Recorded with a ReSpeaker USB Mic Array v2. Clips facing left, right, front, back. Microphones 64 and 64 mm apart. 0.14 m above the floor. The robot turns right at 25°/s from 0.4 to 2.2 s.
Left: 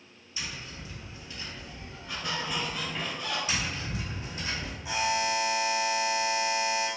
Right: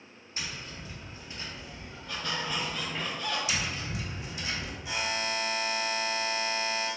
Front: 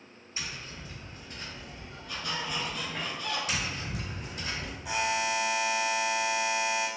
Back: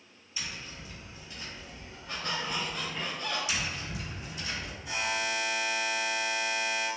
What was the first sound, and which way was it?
Tapping, 55° right.